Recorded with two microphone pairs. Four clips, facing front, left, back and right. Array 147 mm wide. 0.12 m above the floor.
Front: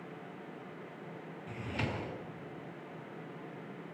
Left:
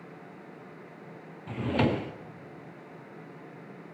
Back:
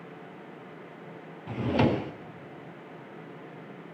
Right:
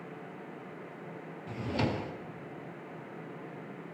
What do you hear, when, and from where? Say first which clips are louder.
1.5 s a drawer: left 6 dB, back 14 dB; 155° left, 1.2 m